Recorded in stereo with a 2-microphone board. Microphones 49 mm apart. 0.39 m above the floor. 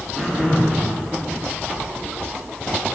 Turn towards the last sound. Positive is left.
turn(degrees=10)  # may be behind; listen again after turning